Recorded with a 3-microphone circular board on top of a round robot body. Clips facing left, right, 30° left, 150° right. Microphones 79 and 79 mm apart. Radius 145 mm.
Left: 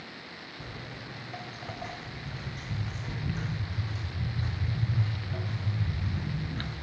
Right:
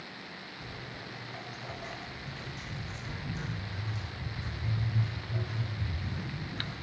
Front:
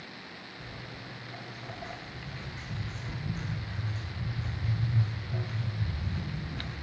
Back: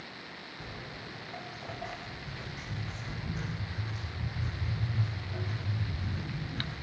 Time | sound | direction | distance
0.6 | footsteps | 145° left | 5 m